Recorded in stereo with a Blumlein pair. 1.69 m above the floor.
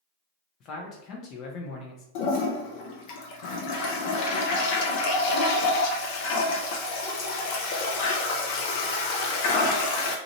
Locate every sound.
0.6 s a man speaking: 35° left, 0.6 m
2.1 s a toilet flushing: 45° left, 0.6 m